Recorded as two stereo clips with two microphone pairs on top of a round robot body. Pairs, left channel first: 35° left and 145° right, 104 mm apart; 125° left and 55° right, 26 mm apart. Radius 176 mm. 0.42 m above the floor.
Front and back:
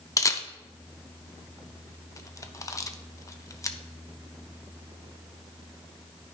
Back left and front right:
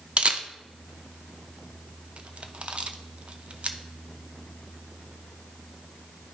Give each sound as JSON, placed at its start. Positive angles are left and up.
{"t": 0.2, "sound": "a camera shutter", "azimuth_deg": -25, "distance_m": 0.9}